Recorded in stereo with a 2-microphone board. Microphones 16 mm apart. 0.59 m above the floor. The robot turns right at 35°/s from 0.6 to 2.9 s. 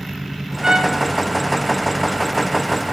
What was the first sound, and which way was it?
A trumpet, 55° right (ahead or behind).